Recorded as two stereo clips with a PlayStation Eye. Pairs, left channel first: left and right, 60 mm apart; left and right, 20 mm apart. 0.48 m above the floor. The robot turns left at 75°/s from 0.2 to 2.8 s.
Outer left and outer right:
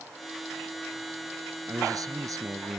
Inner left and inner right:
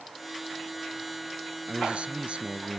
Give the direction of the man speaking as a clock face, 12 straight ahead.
2 o'clock.